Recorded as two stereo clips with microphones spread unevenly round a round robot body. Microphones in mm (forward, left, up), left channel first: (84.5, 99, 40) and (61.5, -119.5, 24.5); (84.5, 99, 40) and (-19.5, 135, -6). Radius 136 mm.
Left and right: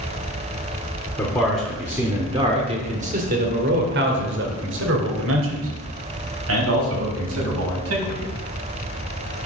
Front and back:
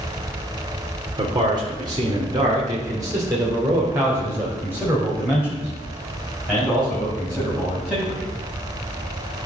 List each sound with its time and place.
1.2 s a man speaking: 165° left, 1.8 m; by 8.3 s 110° right, 5 m